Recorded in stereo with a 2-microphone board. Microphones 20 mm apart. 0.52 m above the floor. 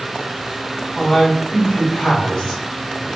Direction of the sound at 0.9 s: 35° left (ahead or behind).